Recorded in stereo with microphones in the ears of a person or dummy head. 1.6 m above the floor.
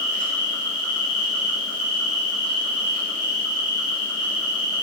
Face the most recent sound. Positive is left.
turn(degrees=-85)